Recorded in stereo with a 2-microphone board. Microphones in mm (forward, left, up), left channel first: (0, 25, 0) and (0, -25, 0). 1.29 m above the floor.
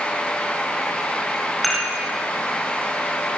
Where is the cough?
No cough in this recording.